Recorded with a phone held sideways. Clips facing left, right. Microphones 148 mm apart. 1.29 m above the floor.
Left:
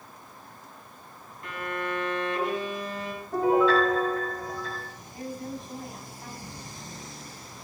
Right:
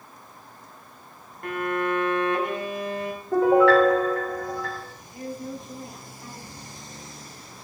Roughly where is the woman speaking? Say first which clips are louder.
Right 2 dB; left.